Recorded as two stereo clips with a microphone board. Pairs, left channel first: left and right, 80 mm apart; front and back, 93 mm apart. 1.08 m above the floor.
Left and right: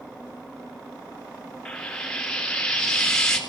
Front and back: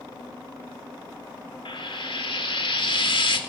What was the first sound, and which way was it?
Frying, 10° left.